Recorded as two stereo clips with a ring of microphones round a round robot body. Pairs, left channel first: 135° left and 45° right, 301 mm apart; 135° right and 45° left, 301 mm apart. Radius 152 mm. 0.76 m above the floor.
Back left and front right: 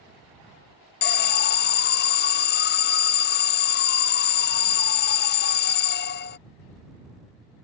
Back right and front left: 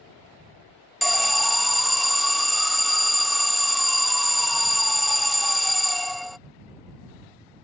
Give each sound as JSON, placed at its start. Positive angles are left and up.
{"t": 1.0, "sound": "an alarm", "azimuth_deg": 135}